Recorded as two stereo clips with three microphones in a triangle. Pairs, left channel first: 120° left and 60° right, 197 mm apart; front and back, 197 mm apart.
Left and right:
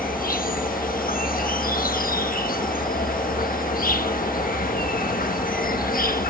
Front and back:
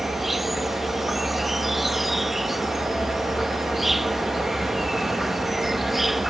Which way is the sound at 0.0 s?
90° left.